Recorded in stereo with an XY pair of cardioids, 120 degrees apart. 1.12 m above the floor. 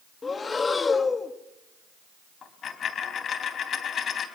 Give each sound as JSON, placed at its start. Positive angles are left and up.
{"t": 0.2, "sound": "breathing", "azimuth_deg": 30, "distance_m": 1.7}
{"t": 2.4, "sound": "a dropped coin", "azimuth_deg": 50, "distance_m": 3.5}